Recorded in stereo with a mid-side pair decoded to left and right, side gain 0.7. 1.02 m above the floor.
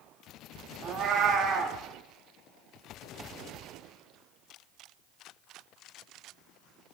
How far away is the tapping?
I don't hear tapping.